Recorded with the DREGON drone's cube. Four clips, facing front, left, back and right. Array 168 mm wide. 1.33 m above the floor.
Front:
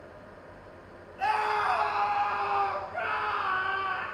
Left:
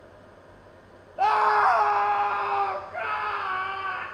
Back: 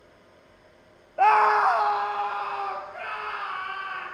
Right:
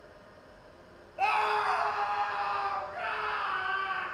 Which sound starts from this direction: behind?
A scream, at 1.2 s.